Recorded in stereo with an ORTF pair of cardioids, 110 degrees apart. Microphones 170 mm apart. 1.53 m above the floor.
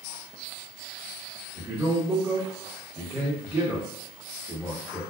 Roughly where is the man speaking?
Ahead.